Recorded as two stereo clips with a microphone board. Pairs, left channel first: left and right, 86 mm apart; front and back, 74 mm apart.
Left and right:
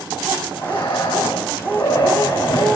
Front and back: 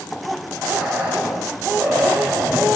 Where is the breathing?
105° left, 3 m.